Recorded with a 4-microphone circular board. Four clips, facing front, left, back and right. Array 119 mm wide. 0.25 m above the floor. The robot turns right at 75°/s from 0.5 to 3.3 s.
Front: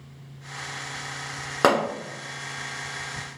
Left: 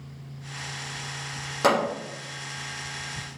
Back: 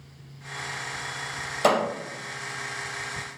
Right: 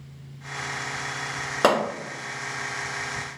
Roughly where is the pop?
Ahead right.